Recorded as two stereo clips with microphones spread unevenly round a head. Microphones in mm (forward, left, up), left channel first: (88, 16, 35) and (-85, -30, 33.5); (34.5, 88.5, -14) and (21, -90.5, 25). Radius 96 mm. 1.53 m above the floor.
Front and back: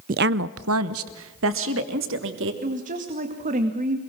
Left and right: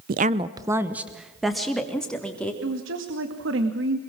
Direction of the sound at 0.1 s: 120° right.